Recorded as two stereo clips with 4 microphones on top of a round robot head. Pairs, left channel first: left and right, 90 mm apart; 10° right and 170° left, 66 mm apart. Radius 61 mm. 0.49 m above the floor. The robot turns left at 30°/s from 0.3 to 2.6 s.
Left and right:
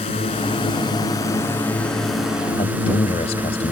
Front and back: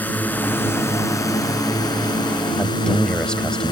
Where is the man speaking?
70° left.